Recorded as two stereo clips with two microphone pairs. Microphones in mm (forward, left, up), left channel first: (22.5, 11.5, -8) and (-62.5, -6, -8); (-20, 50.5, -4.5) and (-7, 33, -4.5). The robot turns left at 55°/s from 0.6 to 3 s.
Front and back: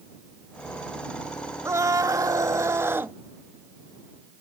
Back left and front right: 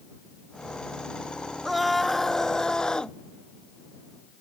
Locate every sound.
1.6 s a scream: 140° right; by 3.1 s 145° left